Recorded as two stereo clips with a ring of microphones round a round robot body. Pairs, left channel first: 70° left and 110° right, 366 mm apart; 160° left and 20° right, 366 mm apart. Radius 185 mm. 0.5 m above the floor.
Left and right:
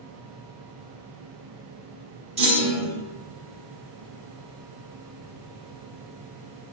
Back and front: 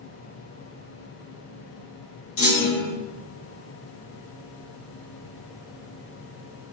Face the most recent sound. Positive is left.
turn(degrees=180)